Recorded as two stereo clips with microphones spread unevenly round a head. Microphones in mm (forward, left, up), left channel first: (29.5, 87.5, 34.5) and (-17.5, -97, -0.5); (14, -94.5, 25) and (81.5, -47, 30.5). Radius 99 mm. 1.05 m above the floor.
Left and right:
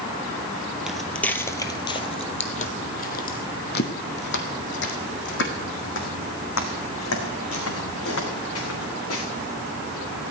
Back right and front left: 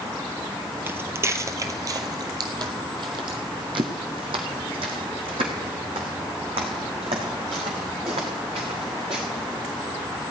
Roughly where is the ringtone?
No ringtone in this recording.